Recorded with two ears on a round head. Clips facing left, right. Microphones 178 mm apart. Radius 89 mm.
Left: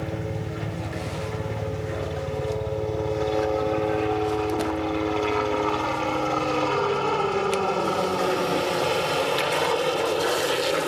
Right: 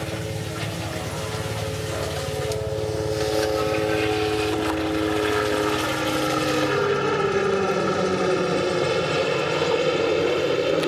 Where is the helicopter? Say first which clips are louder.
Even; centre (ahead or behind); by 10.9 s 30° right (ahead or behind).